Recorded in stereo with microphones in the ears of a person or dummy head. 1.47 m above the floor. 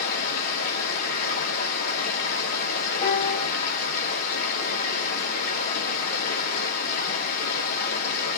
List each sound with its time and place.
0.0 s running water: 40° left (ahead or behind), 1.4 m
3.0 s a piano: 30° left (ahead or behind), 1.4 m